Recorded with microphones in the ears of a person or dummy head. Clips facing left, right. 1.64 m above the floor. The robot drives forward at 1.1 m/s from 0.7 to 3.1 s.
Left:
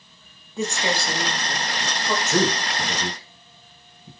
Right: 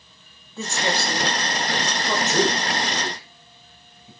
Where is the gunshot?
I don't hear a gunshot.